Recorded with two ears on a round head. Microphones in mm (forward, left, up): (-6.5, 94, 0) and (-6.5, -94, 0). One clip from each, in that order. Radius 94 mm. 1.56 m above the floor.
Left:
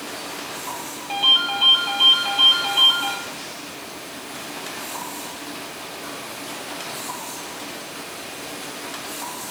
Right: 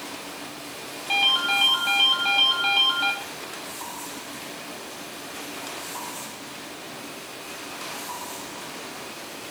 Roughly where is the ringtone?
Right.